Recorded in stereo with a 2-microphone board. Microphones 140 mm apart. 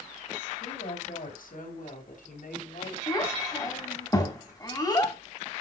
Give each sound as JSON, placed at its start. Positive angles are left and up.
{"t": 0.6, "sound": "a woman speaking", "side_deg": 75, "distance_m": 4.0}
{"t": 3.1, "sound": "a child speaking", "side_deg": 25, "distance_m": 3.5}